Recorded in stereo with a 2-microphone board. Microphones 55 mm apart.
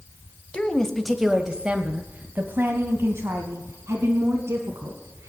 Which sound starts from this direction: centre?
A woman speaking, at 0.5 s.